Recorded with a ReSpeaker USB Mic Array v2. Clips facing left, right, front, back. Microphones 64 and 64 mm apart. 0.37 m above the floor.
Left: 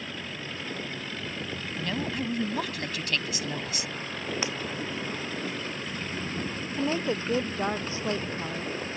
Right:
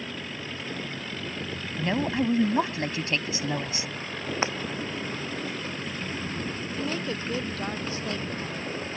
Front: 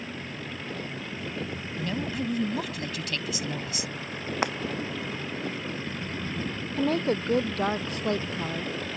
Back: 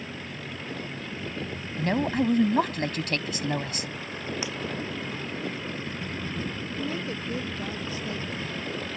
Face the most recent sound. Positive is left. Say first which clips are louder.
# left 4 dB, front 9 dB
turn(degrees=25)